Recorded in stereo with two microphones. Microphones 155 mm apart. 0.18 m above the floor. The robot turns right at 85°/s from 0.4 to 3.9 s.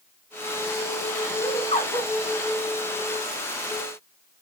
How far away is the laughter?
About 2.5 m.